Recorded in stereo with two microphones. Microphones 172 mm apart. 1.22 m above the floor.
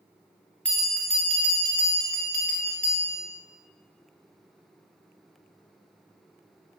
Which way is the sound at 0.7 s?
5° left (ahead or behind).